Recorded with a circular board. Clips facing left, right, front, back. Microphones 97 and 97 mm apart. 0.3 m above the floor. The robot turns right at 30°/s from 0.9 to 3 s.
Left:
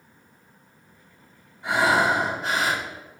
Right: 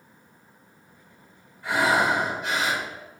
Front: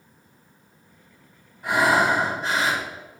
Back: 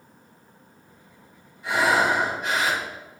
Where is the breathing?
25° left, 1.4 m; by 2.8 s 60° left, 1.4 m.